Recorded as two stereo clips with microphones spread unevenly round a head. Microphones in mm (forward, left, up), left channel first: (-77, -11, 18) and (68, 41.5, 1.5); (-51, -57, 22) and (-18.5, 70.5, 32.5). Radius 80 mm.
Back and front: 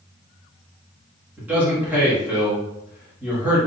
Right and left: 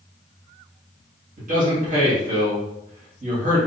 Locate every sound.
1.4 s a man speaking: 100° left, 1.9 m